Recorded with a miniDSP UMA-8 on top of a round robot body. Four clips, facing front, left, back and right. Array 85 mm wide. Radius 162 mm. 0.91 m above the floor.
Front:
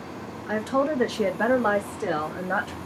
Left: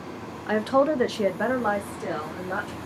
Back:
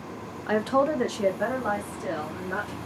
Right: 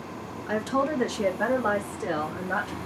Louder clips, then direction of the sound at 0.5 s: Left 5 dB, back 1 dB; 135° left.